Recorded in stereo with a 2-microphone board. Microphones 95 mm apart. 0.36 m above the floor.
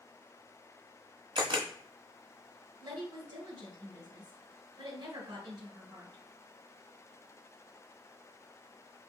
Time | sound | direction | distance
1.4 | a camera shutter | 65° right (ahead or behind) | 1.3 m
2.8 | a woman speaking | 60° right (ahead or behind) | 3 m